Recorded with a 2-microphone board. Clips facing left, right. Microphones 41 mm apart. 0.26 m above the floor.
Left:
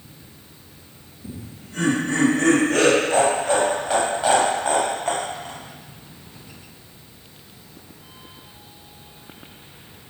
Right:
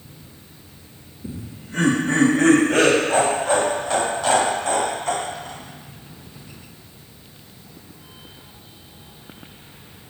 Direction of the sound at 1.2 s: 35° right (ahead or behind).